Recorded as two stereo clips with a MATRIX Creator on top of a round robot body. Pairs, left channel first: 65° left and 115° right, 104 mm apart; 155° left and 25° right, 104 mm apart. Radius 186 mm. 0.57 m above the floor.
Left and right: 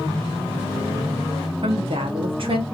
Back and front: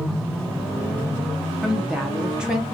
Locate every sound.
1.6 s a woman speaking: 105° right, 1.7 m